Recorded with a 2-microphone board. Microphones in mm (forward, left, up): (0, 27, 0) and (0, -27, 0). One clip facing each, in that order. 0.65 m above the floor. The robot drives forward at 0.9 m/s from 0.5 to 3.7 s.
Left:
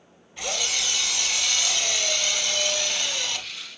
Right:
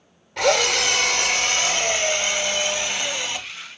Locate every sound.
0.4 s a drill: 80° right, 1.2 m; by 3.5 s 20° right (ahead or behind), 3 m